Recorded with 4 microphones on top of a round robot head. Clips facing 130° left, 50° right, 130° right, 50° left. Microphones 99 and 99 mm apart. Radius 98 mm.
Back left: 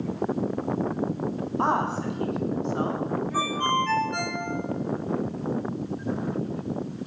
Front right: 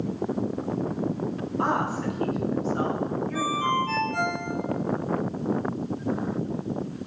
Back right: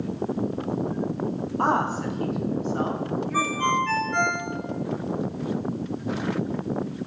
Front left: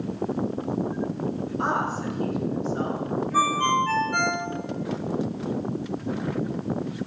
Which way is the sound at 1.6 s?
170° right.